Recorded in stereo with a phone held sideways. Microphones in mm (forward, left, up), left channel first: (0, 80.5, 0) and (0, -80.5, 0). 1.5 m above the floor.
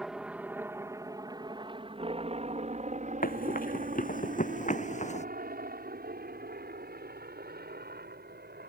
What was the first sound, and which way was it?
A helicopter, 5° right (ahead or behind).